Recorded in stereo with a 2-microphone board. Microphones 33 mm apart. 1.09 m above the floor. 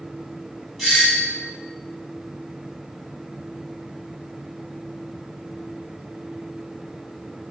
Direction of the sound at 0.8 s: 5° right (ahead or behind).